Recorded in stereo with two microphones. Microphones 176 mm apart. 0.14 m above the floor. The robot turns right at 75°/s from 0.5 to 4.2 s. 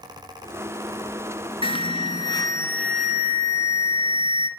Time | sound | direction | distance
1.6 | an alarm | 75° left | 0.9 m